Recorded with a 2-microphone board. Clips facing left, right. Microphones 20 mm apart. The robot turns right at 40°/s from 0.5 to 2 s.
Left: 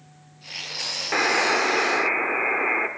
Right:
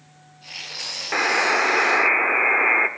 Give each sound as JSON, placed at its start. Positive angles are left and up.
{"t": 1.1, "sound": "a buzzer", "azimuth_deg": -170, "distance_m": 0.6}